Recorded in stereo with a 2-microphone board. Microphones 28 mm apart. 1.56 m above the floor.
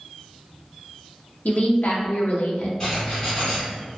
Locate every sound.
1.4 s a woman speaking: 60° left (ahead or behind), 1.0 m
2.8 s writing: 25° left (ahead or behind), 1.9 m